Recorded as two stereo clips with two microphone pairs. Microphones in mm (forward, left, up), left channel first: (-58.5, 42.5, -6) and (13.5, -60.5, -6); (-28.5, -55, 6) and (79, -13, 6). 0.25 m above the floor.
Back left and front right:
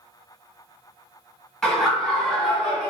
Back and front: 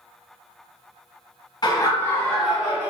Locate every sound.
1.6 s laughter: 150° right, 1.2 m; by 2.9 s 45° left, 1.0 m